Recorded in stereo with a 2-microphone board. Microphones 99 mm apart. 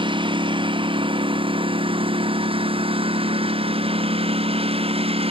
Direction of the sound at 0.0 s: 55° right (ahead or behind).